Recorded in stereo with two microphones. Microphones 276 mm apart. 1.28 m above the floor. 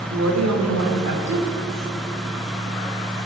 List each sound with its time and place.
0.1 s a woman speaking: 70° right (ahead or behind), 5 m